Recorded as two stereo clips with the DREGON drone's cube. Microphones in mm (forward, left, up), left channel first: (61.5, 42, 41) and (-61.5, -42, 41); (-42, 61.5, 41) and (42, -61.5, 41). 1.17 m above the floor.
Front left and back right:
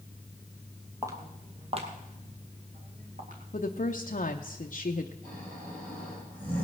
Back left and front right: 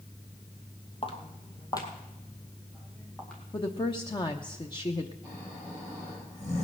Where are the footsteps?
155° left, 1.6 m; by 3.4 s 150° right, 3 m.